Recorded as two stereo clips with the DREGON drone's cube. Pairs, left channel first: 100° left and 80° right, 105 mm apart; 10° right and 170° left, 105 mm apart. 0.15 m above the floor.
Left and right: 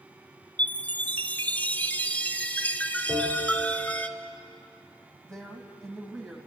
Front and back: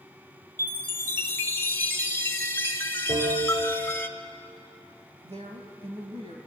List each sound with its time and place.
0.6 s a chime: 40° left, 1.1 m
3.1 s a bell: 165° left, 9.5 m
5.2 s a woman speaking: 175° right, 4 m